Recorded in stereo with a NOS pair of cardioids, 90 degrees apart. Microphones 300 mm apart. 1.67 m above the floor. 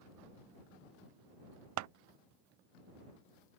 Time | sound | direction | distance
1.8 | scissors | 70° right | ?